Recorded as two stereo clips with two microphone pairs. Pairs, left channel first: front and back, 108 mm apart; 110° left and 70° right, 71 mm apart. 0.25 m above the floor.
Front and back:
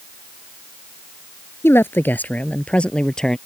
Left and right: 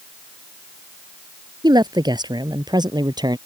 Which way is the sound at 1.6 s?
65° right.